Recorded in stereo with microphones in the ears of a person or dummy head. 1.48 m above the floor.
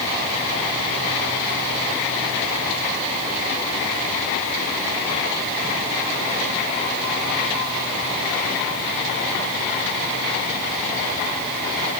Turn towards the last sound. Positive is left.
No sound to turn to.